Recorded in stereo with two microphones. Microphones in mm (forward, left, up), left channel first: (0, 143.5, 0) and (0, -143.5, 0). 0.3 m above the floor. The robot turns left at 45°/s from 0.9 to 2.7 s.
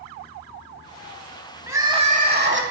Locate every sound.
1.7 s crying: 10° right, 1.0 m; by 2.6 s 55° right, 1.0 m